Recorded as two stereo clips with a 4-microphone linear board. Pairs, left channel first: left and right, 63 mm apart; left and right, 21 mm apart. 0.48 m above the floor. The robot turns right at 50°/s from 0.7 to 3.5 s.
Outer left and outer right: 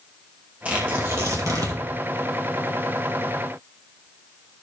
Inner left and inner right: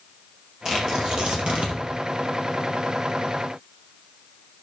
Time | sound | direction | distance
0.7 | tearing paper | 20° right (ahead or behind) | 2.5 m